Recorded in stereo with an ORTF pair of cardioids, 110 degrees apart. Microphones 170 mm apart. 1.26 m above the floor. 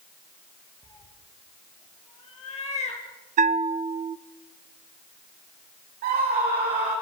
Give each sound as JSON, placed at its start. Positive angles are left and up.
{"t": 0.8, "sound": "a cat meowing", "azimuth_deg": 25, "distance_m": 4.5}
{"t": 3.4, "sound": "a bell", "azimuth_deg": -50, "distance_m": 0.6}
{"t": 6.0, "sound": "a scream", "azimuth_deg": -65, "distance_m": 5.5}